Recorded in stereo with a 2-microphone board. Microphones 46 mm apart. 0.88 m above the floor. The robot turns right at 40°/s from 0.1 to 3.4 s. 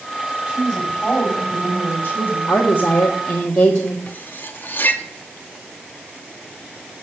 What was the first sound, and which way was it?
A woman speaking, 25° right.